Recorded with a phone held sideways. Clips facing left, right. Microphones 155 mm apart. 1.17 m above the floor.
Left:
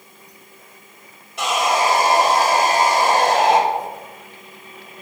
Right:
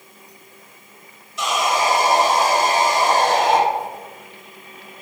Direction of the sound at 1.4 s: 65° left (ahead or behind).